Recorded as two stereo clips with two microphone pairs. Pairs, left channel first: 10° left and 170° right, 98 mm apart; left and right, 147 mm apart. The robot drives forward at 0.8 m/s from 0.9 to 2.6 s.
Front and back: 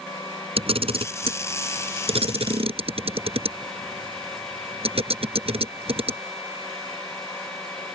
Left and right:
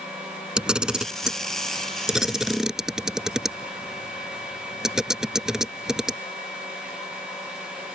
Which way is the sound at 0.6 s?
175° right.